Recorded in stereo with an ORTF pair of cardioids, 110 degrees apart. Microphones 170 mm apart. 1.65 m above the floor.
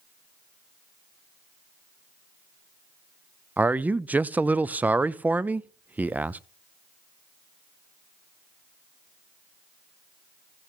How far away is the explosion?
No explosion in this recording.